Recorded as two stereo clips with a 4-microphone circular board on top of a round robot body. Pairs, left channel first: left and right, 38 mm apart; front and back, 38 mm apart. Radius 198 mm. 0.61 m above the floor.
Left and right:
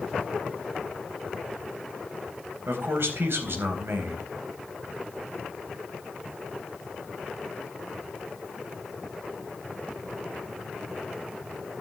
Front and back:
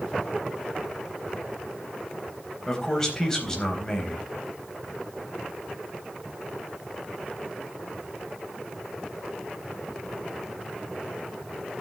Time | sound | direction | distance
2.7 | a man speaking | 70° right | 4 m